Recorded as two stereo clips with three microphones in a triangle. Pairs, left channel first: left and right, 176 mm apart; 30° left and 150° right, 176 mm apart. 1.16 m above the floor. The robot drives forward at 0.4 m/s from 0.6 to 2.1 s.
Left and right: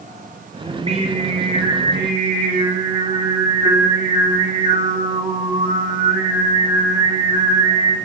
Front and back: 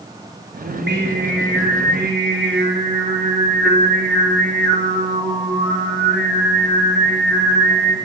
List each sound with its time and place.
0.6 s singing: 145° right, 2.5 m; by 8.0 s 150° right, 3 m